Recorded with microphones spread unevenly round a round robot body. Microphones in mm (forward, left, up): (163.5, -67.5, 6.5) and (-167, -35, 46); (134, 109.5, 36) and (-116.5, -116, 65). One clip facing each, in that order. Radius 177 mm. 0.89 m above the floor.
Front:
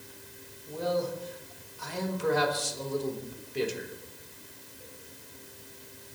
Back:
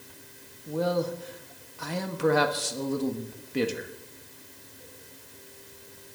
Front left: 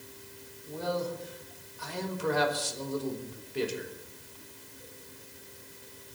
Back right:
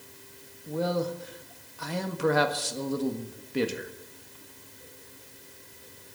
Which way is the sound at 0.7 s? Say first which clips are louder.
Back 3 dB, back right 4 dB; 160° right.